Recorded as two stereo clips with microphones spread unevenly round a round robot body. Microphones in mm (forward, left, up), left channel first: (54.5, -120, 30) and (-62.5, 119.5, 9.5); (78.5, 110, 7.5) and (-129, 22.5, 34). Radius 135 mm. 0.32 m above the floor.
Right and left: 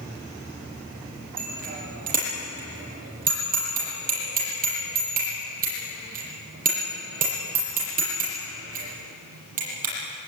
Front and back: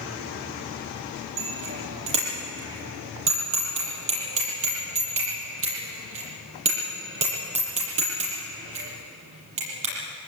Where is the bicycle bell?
175° left, 7.5 m.